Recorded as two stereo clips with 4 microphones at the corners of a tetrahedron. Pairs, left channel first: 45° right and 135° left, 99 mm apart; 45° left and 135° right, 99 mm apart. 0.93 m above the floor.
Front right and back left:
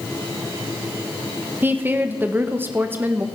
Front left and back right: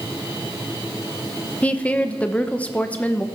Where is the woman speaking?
105° left, 0.7 m.